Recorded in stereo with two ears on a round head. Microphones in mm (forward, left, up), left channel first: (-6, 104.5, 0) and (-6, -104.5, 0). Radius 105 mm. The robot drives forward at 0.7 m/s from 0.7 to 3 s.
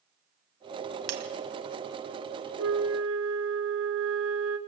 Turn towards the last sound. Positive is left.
turn(degrees=-65)  # may be behind; listen again after turning